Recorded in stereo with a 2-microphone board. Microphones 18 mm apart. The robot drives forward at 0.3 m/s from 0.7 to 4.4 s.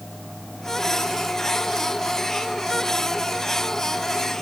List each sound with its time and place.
Only background noise.